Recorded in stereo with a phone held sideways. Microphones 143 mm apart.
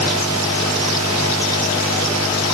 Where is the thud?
I don't hear a thud.